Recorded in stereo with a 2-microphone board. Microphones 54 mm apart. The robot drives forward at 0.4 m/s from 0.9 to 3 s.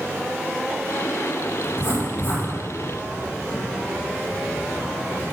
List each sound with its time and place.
1.6 s writing: 40° left (ahead or behind), 4 m; by 5.2 s 35° left (ahead or behind), 4.5 m